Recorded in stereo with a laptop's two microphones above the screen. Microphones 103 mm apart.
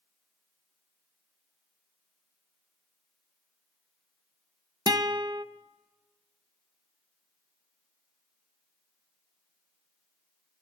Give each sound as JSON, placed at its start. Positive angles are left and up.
{"t": 4.9, "sound": "a guitar", "side_deg": -40, "distance_m": 0.5}